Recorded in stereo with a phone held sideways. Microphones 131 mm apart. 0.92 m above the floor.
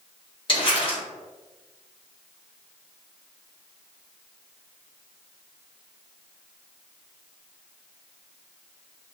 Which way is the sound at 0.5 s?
40° left (ahead or behind).